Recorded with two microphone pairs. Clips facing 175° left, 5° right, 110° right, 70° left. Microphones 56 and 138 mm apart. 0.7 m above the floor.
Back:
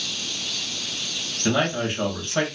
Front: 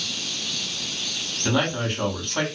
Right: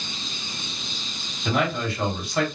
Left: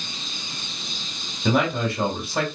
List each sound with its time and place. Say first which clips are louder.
1.4 s a man speaking: back 1 dB, left 3 dB; 95° left, 2.5 m